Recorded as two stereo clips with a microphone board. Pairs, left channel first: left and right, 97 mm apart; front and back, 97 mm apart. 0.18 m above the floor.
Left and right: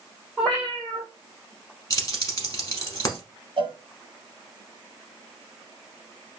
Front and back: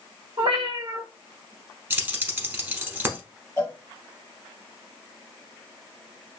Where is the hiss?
I don't hear a hiss.